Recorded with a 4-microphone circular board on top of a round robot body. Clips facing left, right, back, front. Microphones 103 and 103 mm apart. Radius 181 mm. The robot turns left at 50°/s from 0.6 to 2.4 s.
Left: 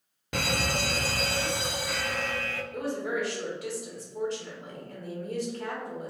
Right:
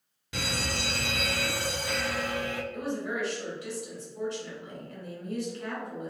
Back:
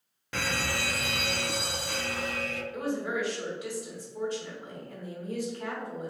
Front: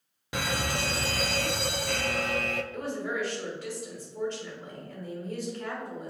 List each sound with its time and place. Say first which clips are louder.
0.3 s an alarm: left 4 dB, front 1 dB; 70° left, 0.5 m; by 2.6 s 20° right, 0.5 m
2.7 s a woman speaking: left 6 dB, back 1 dB; 105° left, 1.9 m